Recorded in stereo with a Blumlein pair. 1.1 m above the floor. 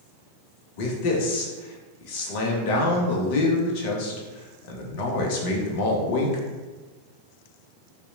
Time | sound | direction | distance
0.8 | a man speaking | 45° left | 0.5 m